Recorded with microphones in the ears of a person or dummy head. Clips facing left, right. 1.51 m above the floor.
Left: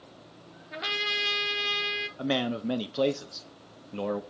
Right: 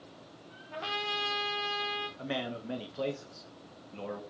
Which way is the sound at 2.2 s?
70° left (ahead or behind).